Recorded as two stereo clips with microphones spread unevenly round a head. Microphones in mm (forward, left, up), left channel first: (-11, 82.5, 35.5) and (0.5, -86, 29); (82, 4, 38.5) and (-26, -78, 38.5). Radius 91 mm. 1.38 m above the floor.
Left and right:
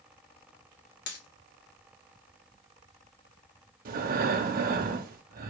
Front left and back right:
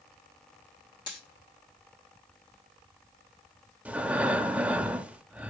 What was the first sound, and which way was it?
A dropped coin, 100° left.